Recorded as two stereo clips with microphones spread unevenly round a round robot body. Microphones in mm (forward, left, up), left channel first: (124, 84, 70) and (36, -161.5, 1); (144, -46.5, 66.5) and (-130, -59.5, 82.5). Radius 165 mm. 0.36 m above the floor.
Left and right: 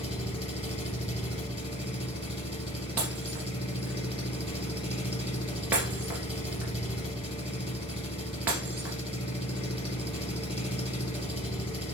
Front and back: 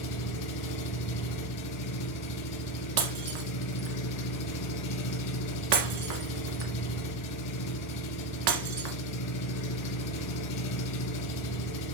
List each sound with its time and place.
0.0 s an engine running: straight ahead, 2.5 m
3.0 s breaking glass: 165° left, 1.7 m